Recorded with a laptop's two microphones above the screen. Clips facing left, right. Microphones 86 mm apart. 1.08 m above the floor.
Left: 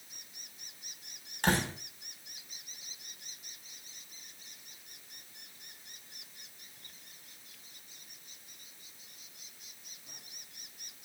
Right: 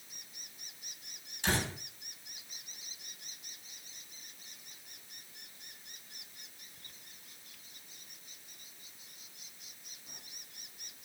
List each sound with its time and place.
1.4 s a door slam: 65° left (ahead or behind), 5.5 m